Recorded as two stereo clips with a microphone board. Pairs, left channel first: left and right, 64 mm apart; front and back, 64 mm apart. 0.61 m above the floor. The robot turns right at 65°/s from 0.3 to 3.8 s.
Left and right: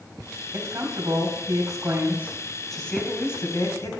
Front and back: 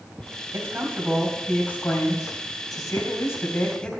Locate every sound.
0.5 s a woman speaking: 140° right, 3.5 m; by 3.9 s 75° left, 3.5 m